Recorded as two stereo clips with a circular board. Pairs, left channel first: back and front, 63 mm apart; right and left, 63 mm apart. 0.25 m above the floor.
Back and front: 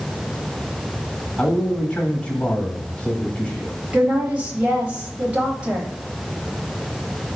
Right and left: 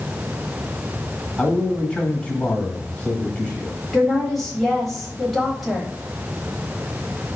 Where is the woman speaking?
Straight ahead, 0.9 m.